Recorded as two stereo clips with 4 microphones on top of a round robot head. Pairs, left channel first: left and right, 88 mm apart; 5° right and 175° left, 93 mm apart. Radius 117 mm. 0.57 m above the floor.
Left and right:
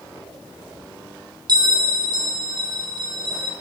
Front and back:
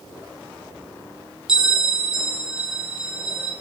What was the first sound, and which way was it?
A bell, 105° right.